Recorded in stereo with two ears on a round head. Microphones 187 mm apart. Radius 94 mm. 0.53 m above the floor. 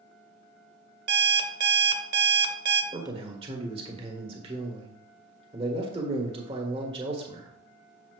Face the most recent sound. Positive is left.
turn(degrees=-25)  # may be behind; listen again after turning